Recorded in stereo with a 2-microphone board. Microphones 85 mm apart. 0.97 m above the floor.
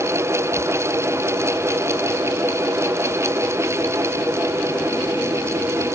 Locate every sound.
Only background noise.